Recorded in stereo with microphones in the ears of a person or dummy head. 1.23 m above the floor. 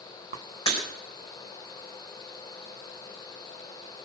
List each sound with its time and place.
0.7 s breaking glass: 25° left (ahead or behind), 3.5 m